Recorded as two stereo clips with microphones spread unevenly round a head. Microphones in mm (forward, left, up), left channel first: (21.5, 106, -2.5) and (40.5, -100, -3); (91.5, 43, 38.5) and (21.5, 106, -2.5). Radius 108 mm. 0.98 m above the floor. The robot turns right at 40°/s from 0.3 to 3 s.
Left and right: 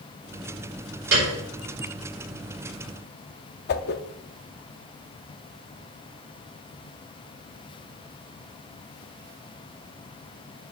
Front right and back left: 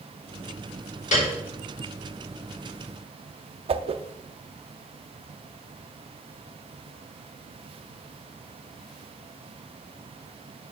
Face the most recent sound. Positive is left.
turn(degrees=105)